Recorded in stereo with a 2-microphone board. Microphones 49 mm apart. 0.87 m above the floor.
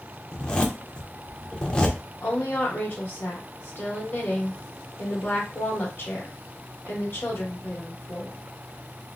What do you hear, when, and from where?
0.3 s a zipper: 15° left (ahead or behind), 0.5 m
2.2 s a woman speaking: 50° left (ahead or behind), 1.2 m